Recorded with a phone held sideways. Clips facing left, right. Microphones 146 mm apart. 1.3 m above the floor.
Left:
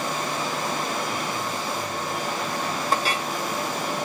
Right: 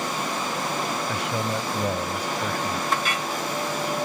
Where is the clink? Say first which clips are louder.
Left 1 dB; 35° left (ahead or behind).